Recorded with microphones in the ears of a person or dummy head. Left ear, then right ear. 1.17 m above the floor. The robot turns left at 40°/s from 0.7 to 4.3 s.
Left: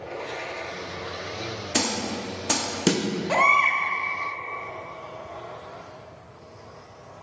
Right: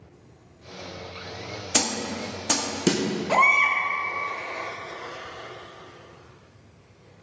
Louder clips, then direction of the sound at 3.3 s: Even; 5° left (ahead or behind).